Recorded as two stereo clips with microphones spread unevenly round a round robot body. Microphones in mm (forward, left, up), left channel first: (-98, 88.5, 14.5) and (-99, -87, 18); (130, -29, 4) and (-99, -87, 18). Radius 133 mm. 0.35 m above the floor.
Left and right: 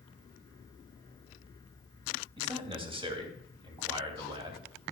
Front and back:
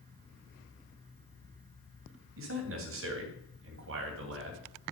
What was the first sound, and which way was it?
A man speaking, 145° right.